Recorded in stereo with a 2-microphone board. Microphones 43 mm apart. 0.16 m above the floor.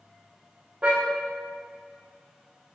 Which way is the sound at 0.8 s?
30° right (ahead or behind).